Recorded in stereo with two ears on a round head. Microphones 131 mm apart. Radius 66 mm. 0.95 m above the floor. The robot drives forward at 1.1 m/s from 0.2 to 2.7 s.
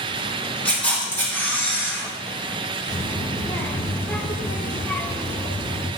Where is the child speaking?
15° left (ahead or behind), 1.9 m.